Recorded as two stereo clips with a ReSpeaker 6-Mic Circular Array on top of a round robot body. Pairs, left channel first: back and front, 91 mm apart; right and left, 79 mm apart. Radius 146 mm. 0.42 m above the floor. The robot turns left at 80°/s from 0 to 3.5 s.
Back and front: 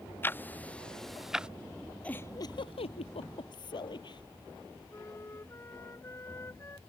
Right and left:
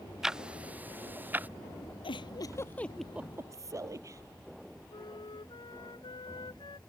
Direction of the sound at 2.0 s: 100° right.